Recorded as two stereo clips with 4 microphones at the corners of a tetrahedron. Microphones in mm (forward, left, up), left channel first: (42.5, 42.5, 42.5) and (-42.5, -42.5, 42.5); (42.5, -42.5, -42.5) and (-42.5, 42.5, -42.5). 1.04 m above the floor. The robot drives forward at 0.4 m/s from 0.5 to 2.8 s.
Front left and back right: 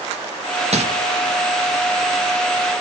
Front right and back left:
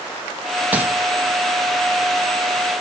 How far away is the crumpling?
About 1.2 m.